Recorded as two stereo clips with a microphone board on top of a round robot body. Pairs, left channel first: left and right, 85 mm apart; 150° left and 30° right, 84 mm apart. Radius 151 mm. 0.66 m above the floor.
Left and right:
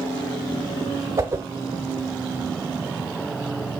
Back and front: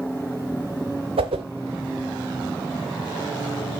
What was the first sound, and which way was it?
A whoosh, 30° right.